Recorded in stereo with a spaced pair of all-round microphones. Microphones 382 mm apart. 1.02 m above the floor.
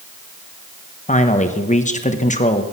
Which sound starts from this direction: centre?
A man speaking, at 1.1 s.